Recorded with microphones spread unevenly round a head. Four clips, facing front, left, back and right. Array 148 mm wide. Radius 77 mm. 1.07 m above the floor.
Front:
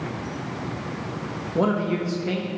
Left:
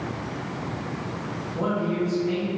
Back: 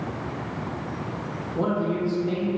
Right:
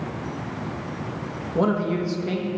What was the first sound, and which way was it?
A man speaking, 35° right.